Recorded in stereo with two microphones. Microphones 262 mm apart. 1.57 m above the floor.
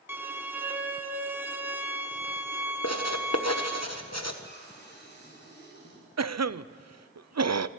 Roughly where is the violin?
Centre.